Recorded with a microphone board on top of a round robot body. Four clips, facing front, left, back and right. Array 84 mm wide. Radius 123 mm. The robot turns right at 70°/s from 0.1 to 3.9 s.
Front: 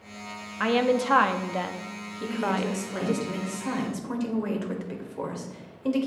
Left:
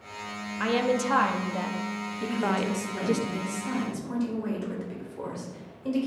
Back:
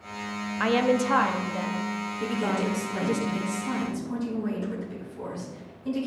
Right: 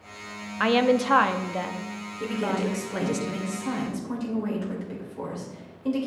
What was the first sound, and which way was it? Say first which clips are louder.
A woman speaking: right 4 dB, even; 95° right.